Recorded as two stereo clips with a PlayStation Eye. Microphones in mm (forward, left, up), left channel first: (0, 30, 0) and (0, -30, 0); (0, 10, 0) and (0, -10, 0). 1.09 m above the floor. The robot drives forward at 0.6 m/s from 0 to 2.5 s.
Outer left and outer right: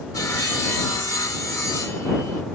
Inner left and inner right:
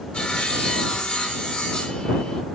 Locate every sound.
0.1 s sawing: 85° left, 2.5 m; by 2.4 s 60° left (ahead or behind), 3 m